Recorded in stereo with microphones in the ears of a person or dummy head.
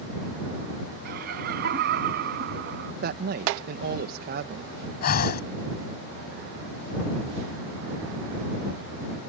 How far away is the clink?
I don't hear a clink.